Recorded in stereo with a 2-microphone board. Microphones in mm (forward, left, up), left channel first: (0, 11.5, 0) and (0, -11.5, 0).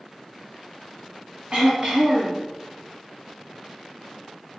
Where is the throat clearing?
45° right (ahead or behind), 1.0 m.